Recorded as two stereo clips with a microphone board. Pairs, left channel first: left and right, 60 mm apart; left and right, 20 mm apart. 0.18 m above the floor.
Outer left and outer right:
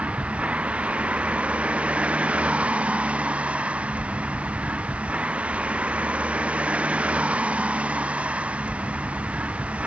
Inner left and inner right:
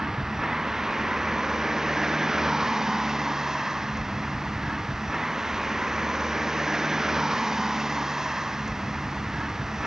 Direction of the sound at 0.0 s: 20° right (ahead or behind).